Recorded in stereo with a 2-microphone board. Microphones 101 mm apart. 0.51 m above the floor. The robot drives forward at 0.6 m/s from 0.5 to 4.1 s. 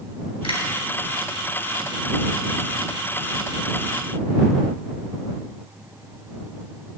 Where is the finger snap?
60° left (ahead or behind), 3 m.